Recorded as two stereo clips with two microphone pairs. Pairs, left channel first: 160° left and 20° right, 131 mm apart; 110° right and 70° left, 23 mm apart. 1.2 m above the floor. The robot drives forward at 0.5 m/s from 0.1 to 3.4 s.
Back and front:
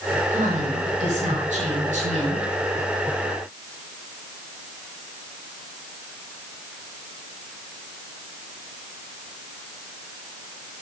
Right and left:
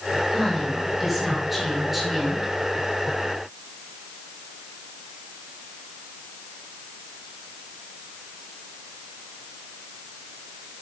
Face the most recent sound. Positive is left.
turn(degrees=-15)